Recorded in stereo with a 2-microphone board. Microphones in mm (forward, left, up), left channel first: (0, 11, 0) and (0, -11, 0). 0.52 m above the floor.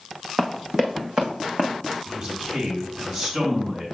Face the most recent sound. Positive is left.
turn(degrees=-30)  # may be behind; listen again after turning